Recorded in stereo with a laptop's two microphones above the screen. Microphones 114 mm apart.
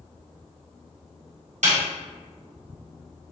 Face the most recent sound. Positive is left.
turn(degrees=-80)